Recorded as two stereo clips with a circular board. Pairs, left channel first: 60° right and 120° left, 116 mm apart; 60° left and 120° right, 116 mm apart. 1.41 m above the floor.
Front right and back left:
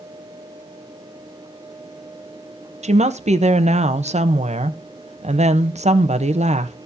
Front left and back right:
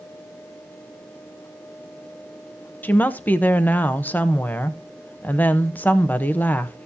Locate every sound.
2.8 s a woman speaking: 135° left, 0.9 m